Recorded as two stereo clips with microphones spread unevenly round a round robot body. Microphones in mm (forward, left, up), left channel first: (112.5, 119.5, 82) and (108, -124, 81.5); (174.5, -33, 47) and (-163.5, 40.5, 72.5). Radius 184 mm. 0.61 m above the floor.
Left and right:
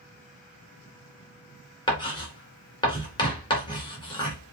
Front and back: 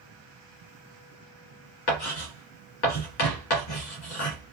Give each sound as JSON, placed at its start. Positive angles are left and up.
{"t": 1.9, "sound": "writing", "azimuth_deg": 15, "distance_m": 2.5}